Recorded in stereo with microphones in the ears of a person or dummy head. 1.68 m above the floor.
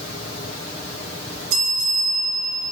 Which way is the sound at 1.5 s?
50° right (ahead or behind).